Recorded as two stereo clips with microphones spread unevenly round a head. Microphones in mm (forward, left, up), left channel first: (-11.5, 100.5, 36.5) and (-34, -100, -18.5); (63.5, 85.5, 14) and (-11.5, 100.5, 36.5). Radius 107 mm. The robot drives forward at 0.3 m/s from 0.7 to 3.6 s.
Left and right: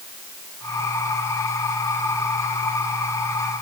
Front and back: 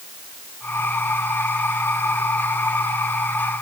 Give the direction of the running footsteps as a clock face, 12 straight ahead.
No running footsteps in this recording.